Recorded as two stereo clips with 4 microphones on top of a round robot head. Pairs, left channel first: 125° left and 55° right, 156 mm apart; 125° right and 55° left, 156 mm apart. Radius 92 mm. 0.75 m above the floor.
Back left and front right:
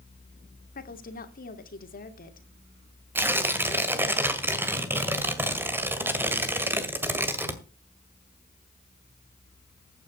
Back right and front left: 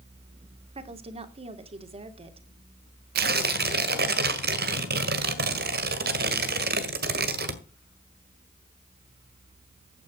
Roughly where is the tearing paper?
Ahead left.